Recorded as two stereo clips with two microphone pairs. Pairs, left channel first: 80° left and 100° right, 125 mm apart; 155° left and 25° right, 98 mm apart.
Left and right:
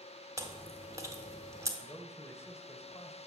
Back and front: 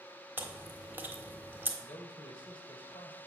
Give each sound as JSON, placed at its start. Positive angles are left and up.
{"t": 0.4, "sound": "chewing", "azimuth_deg": -70, "distance_m": 1.5}
{"t": 1.8, "sound": "a man speaking", "azimuth_deg": 145, "distance_m": 1.8}